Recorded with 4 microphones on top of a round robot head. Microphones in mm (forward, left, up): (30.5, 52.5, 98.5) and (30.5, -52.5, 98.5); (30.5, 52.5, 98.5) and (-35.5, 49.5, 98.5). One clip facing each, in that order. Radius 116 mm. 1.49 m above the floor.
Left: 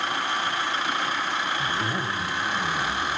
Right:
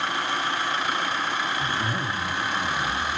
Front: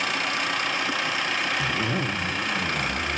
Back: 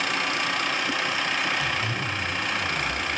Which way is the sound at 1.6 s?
10° left.